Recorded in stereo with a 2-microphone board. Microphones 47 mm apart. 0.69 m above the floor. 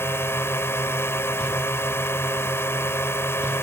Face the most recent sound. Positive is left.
turn(degrees=70)  # may be behind; listen again after turning